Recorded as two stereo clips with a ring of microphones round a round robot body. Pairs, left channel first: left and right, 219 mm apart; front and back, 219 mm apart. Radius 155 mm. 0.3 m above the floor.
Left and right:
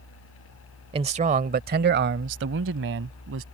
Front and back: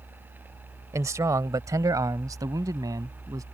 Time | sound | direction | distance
0.9 | a man speaking | 120° right | ?